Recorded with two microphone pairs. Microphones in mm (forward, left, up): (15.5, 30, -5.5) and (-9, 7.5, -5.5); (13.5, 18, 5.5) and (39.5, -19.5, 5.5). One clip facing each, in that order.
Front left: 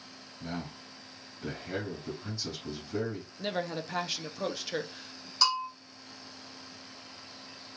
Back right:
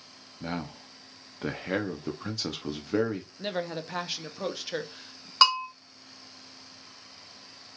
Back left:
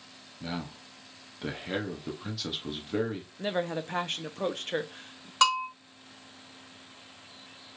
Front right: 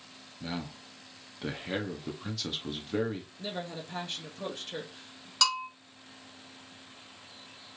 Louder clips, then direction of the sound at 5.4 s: Back right 6 dB, back left 6 dB; 170° right.